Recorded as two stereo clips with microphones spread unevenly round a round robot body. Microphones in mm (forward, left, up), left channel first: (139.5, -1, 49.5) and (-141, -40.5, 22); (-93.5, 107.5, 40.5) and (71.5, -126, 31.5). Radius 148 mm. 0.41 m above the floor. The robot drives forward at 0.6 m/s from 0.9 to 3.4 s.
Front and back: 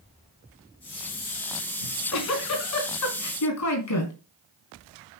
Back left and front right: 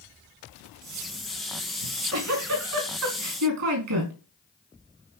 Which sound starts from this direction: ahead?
A giggle, at 1.8 s.